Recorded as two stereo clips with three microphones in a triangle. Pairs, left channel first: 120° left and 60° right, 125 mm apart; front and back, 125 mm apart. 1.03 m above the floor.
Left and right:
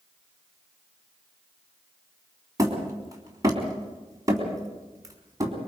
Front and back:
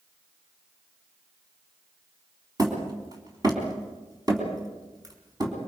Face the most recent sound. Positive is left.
turn(degrees=-120)